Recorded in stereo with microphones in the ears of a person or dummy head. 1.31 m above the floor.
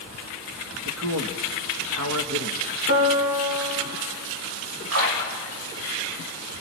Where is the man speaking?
80° right, 1.5 m.